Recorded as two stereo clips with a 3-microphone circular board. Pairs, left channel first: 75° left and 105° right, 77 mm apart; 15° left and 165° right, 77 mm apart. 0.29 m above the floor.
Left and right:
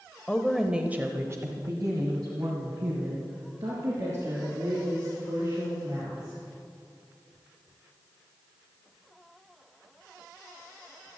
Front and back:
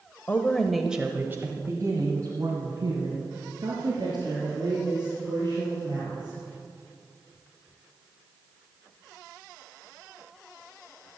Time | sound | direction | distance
0.3 | a woman speaking | 15° left | 1.1 m